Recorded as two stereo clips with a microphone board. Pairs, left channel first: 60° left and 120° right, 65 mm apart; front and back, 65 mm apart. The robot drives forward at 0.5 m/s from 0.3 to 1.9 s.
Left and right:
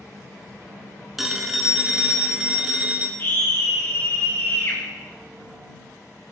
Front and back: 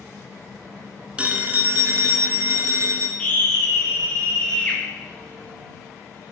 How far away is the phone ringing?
About 0.6 m.